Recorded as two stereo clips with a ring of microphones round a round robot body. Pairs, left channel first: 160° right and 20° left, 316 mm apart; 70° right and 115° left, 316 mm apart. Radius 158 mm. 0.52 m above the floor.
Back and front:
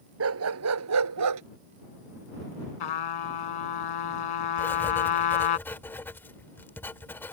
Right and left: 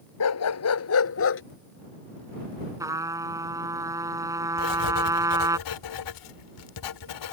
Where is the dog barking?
25° right; by 1.4 s 15° right.